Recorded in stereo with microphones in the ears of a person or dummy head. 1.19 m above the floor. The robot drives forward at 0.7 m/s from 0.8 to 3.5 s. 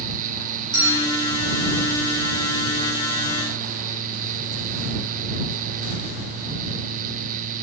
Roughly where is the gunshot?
No gunshot in this recording.